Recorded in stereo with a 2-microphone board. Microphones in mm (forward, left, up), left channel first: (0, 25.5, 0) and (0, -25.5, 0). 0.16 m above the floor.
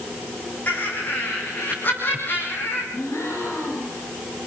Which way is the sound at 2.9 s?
60° left (ahead or behind).